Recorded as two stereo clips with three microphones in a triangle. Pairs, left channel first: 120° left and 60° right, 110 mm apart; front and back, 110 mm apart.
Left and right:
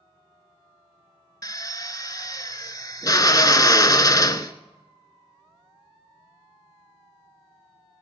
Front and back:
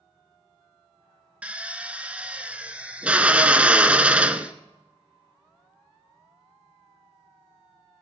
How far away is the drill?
About 0.6 m.